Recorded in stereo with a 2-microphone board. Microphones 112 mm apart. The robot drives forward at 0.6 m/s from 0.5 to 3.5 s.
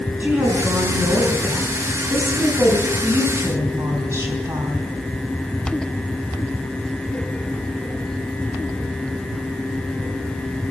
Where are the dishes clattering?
No dishes clattering in this recording.